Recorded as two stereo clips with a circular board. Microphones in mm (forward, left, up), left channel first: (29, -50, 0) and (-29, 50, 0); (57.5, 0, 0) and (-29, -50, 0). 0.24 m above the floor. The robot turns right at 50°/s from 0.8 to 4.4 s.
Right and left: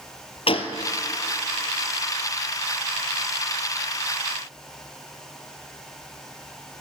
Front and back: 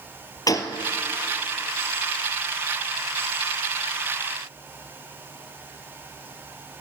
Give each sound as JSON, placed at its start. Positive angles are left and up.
{"t": 0.5, "sound": "a gunshot", "azimuth_deg": -25, "distance_m": 1.0}